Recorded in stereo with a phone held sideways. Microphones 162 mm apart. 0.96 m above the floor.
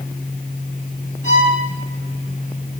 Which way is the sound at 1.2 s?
50° left (ahead or behind).